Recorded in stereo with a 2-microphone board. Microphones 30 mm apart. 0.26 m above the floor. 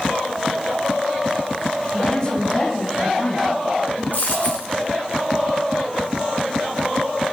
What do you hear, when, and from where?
1.9 s a woman speaking: 30° left (ahead or behind), 1.7 m; by 4.0 s 20° left (ahead or behind), 3 m
4.1 s a dropped coin: 55° left (ahead or behind), 5 m